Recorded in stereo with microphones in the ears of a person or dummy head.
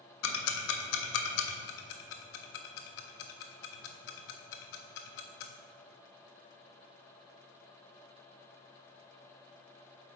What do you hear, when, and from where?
0.2 s ticking: 80° left, 0.8 m
1.7 s ticking: 65° left (ahead or behind), 0.6 m